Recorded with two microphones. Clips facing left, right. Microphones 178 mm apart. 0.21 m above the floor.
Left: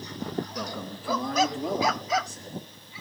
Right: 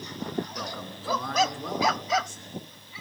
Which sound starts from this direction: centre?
A man speaking, at 0.6 s.